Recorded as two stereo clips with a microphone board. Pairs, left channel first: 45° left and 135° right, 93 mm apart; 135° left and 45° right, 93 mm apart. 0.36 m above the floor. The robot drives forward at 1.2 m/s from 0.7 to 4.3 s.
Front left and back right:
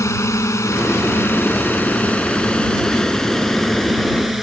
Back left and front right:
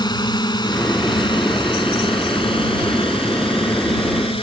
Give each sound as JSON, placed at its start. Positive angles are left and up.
{"t": 0.0, "sound": "a drone", "azimuth_deg": 100}